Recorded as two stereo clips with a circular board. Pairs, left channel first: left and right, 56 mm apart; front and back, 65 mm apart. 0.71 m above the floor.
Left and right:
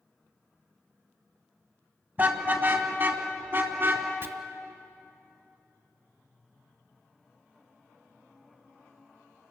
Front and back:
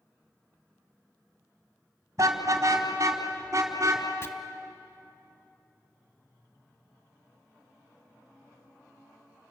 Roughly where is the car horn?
Behind right.